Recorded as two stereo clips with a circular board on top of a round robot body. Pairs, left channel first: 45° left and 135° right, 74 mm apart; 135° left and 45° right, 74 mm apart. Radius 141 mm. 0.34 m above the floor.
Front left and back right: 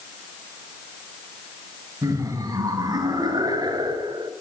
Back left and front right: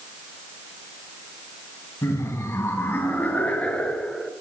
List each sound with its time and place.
2.0 s laughter: 175° right, 3.5 m; by 4.3 s 140° right, 2.5 m